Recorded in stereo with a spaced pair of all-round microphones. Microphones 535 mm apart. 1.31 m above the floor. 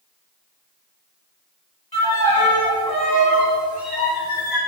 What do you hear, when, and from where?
1.9 s a violin: 40° left (ahead or behind), 4 m